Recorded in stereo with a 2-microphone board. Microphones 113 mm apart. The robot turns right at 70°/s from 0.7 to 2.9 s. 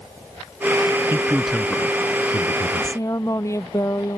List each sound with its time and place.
1.1 s a man speaking: 25° right (ahead or behind); by 3.0 s 60° left (ahead or behind)
2.8 s a woman speaking: 40° left (ahead or behind); by 4.2 s 30° left (ahead or behind)